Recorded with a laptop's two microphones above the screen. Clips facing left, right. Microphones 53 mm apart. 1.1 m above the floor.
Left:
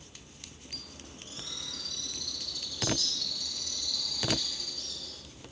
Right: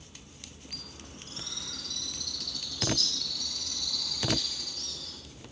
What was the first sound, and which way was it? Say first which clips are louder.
A bird: right 1 dB; 60° right (ahead or behind).